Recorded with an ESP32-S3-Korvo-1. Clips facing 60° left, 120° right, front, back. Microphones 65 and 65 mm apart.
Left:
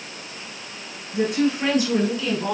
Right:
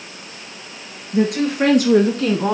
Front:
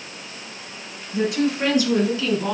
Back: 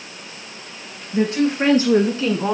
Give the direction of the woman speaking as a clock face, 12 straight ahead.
4 o'clock.